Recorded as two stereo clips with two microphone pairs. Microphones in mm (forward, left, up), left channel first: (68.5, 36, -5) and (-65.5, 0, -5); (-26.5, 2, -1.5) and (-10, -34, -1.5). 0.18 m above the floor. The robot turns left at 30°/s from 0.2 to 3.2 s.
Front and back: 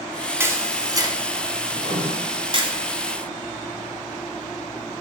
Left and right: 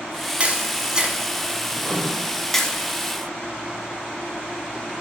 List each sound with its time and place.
0.4 s a camera shutter: 105° right, 1.4 m; by 2.7 s 175° right, 1.4 m
1.7 s writing: 65° left, 2 m; by 2.1 s 55° left, 2 m